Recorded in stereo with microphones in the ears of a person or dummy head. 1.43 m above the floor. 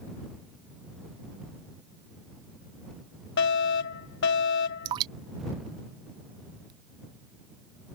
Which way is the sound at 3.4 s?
65° left (ahead or behind).